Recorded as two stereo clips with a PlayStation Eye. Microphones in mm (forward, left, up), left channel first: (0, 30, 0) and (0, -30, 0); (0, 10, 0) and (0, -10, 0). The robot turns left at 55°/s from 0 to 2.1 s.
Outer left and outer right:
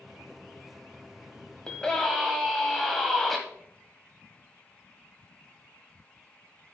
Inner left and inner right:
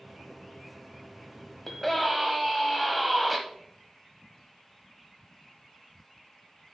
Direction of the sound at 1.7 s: 20° left (ahead or behind).